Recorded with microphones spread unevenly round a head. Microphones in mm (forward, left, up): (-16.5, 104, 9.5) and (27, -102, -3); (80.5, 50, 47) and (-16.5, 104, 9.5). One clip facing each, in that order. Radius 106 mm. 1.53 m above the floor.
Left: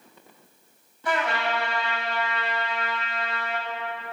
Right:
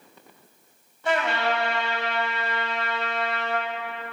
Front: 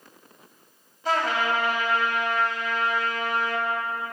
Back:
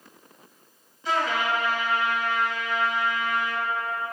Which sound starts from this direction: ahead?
A trumpet, at 1.1 s.